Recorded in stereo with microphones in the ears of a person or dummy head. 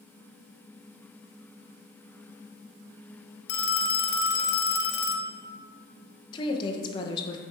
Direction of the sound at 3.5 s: 65° left (ahead or behind).